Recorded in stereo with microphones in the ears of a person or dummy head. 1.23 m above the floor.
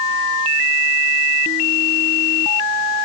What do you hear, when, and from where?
Only background noise.